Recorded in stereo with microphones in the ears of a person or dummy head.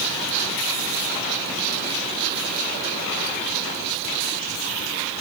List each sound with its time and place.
Only background noise.